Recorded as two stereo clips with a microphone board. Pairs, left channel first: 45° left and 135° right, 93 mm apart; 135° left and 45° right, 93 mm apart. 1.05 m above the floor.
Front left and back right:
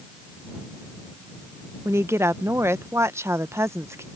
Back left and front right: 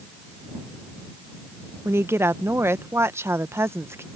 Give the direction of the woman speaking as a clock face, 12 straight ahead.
3 o'clock.